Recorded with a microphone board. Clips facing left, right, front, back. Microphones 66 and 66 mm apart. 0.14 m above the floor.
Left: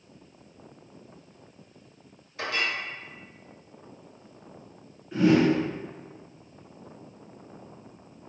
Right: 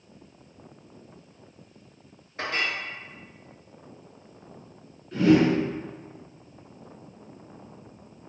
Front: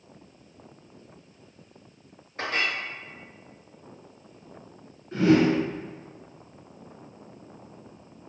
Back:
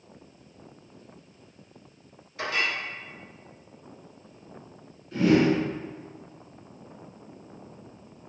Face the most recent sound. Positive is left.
turn(degrees=10)